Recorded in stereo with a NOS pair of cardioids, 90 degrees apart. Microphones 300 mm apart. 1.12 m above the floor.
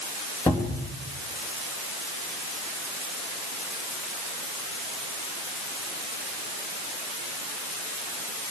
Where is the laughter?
I don't hear laughter.